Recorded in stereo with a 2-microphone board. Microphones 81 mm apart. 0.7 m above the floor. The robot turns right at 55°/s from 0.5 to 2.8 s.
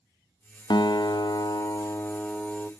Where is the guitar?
75° left, 0.6 m; by 2.7 s 175° right, 0.6 m.